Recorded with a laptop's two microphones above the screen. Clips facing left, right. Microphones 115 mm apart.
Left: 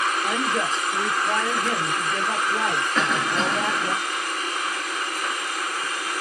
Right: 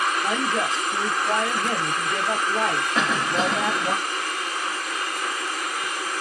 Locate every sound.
0.2 s a woman speaking: 30° right (ahead or behind), 1.3 m
3.0 s a cough: 10° right (ahead or behind), 0.5 m